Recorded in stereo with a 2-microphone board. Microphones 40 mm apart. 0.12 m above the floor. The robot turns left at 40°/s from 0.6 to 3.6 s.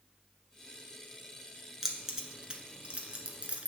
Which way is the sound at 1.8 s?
5° right (ahead or behind).